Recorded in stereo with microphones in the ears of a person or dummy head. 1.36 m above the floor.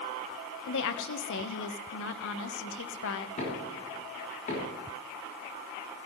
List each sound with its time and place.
0.7 s a woman speaking: 65° left (ahead or behind), 1.0 m
3.4 s knocking: 40° left (ahead or behind), 3 m